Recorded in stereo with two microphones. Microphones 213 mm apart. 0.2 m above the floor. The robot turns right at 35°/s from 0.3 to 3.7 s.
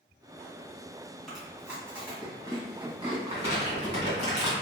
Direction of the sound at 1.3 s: Centre (ahead or behind).